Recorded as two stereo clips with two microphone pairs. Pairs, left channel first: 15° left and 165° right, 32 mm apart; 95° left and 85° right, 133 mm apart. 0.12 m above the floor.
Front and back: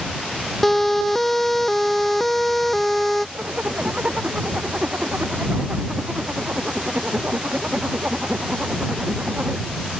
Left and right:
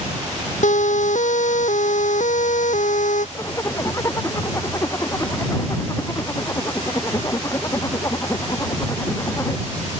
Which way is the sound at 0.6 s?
100° left.